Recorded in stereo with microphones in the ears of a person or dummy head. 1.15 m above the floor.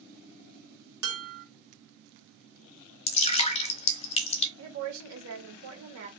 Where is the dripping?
30° left (ahead or behind), 1.0 m.